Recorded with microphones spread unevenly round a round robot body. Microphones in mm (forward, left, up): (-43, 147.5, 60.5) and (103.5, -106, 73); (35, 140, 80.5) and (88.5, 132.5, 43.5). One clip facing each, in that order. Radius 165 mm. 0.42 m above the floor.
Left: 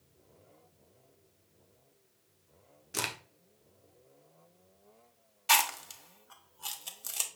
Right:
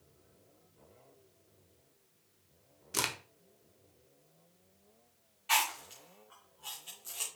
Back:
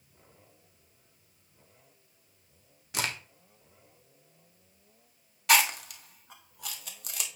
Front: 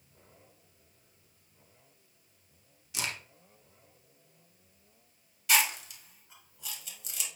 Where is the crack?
145° right, 1.0 m.